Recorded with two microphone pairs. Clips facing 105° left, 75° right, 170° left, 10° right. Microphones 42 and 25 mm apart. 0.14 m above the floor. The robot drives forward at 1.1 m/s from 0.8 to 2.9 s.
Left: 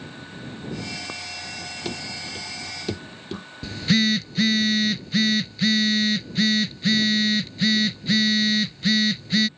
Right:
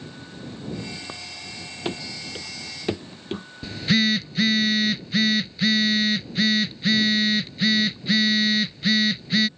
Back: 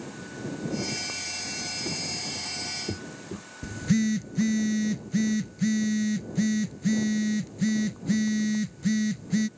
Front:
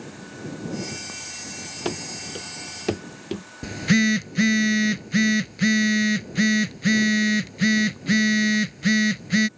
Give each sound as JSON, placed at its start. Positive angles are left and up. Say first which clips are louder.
{"t": 1.9, "sound": "running footsteps", "louder": "right 3 dB, front 1 dB", "azimuth_deg": -15}
{"t": 3.6, "sound": "a phone buzzing", "louder": "even, front 6 dB", "azimuth_deg": 15}